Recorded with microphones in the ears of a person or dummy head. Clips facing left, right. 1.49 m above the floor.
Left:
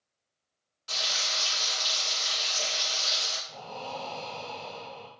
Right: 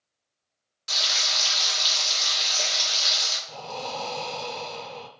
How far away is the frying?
About 1.9 m.